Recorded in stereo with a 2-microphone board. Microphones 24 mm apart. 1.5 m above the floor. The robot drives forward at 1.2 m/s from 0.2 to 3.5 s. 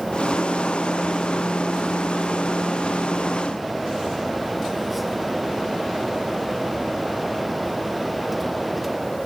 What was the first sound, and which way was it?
Only background noise.